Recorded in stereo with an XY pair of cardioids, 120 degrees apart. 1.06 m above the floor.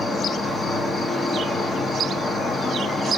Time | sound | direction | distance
0.0 | an insect | 30° left | 0.8 m